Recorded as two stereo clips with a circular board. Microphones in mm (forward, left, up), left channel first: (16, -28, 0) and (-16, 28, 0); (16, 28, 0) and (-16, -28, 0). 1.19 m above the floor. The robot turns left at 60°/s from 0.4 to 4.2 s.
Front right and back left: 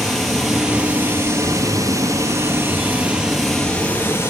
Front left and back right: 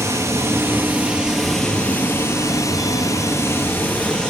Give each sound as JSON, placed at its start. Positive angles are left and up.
{"t": 0.0, "sound": "running water", "azimuth_deg": -145, "distance_m": 2.0}